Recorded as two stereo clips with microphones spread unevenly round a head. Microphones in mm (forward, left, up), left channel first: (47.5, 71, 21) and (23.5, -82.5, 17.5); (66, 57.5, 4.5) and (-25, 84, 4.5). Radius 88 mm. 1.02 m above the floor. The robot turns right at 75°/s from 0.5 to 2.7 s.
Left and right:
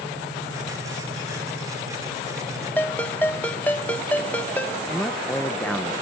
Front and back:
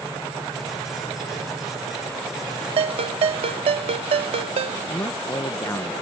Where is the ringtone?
160° left.